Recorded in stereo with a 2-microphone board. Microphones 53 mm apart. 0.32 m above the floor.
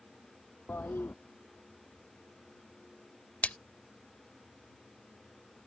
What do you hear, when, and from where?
0.7 s a toilet flushing: 40° left (ahead or behind)
3.4 s a splash: 25° left (ahead or behind)